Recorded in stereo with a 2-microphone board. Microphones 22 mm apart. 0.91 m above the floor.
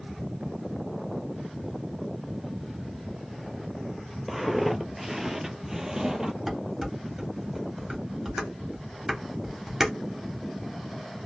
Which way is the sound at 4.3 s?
Centre (ahead or behind).